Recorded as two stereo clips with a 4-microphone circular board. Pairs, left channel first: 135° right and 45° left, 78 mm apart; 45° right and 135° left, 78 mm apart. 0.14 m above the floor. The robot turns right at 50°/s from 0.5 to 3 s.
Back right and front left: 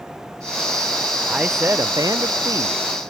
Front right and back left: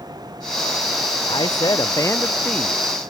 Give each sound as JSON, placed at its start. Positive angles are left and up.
{"t": 1.3, "sound": "a man speaking", "azimuth_deg": -35}